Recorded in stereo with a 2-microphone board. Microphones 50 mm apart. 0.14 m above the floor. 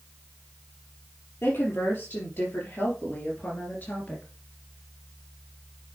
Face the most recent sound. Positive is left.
turn(degrees=35)  # may be behind; listen again after turning